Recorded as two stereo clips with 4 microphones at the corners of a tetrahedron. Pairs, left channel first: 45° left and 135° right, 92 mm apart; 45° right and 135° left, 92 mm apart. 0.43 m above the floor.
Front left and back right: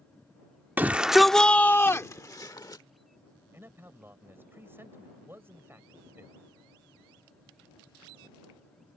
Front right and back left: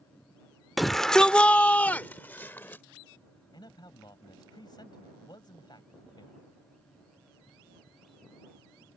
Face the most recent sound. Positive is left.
turn(degrees=-75)